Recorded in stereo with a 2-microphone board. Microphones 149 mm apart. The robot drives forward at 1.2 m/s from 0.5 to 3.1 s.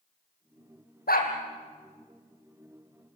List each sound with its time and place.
1.1 s a dog barking: 85° left, 3.5 m; by 1.3 s 80° left, 3.5 m